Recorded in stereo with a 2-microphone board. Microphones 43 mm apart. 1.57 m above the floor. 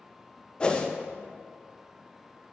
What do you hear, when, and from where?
0.6 s a whoosh: 20° left (ahead or behind), 0.6 m